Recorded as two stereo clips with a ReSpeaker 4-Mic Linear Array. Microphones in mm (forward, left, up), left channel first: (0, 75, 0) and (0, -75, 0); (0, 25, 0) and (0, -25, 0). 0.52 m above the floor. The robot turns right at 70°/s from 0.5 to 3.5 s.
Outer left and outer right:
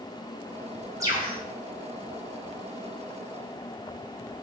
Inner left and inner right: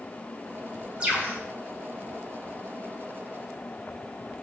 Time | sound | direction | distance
1.0 | a bird | 20° right (ahead or behind) | 2.5 m